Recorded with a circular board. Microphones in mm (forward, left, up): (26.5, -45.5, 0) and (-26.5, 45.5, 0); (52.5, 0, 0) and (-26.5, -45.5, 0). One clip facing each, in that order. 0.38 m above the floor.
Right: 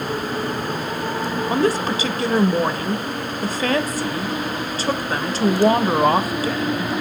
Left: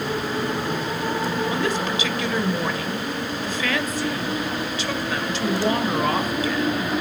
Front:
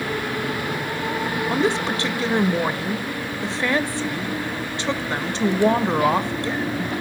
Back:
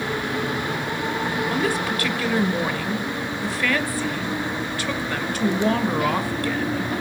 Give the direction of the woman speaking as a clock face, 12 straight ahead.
1 o'clock.